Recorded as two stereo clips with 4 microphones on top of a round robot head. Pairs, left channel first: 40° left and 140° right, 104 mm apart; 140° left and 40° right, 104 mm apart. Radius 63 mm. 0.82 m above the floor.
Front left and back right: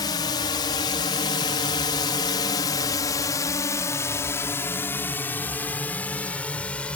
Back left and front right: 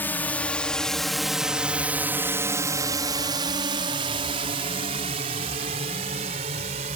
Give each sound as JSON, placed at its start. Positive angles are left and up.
{"t": 0.0, "sound": "a drone", "azimuth_deg": 75}